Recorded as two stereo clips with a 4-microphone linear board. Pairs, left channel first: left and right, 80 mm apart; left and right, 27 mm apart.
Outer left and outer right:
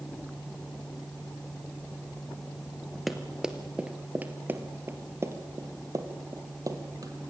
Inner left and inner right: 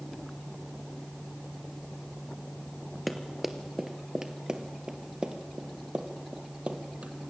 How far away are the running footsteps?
About 1.7 m.